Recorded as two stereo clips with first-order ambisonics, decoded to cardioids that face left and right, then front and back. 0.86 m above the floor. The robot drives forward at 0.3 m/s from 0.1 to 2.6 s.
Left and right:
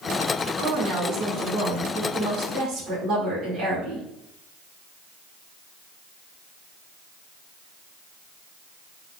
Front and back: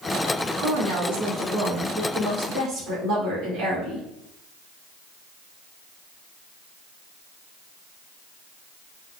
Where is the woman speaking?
140° right, 1.9 m; by 4.0 s 150° right, 2.5 m.